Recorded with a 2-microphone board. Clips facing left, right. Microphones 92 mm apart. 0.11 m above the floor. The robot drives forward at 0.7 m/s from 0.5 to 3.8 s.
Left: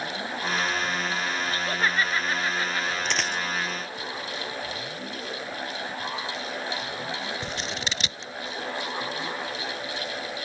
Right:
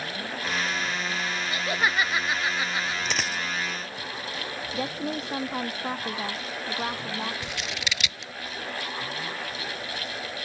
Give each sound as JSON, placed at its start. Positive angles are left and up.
{"t": 1.5, "sound": "laughter", "side_deg": -10}
{"t": 3.0, "sound": "a dropped coin", "side_deg": 0}
{"t": 4.7, "sound": "a woman speaking", "side_deg": -65}
{"t": 7.4, "sound": "scissors", "side_deg": 35}